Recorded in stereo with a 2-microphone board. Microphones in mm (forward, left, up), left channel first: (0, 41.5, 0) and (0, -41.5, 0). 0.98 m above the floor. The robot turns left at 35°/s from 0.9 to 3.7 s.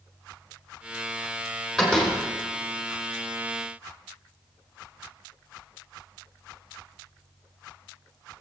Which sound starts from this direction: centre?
A door slam, at 1.8 s.